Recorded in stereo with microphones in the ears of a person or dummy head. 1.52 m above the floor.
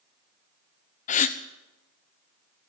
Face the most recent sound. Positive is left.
turn(degrees=45)  # may be behind; listen again after turning